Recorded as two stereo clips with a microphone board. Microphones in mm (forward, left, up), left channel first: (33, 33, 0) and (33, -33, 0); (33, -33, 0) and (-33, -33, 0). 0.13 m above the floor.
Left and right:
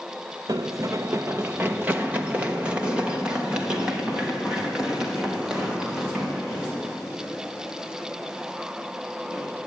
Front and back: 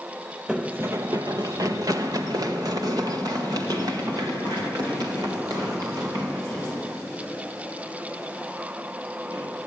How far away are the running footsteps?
About 0.6 m.